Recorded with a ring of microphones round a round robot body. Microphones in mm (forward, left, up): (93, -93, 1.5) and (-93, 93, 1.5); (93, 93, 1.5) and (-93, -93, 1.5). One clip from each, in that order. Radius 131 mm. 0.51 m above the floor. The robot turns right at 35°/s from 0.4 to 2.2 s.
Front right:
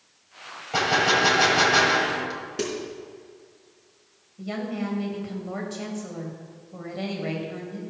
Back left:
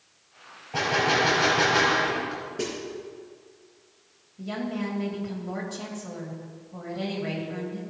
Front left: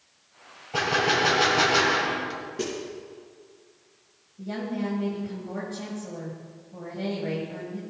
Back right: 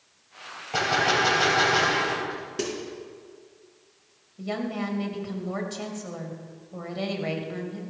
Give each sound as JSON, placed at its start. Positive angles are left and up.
{"t": 0.7, "sound": "a gunshot", "azimuth_deg": -75, "distance_m": 3.0}
{"t": 2.6, "sound": "a snare drum", "azimuth_deg": -85, "distance_m": 4.5}
{"t": 4.4, "sound": "a woman speaking", "azimuth_deg": -125, "distance_m": 3.0}